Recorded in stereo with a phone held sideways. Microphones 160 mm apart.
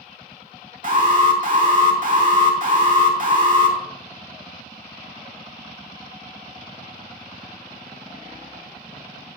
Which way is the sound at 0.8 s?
55° right (ahead or behind).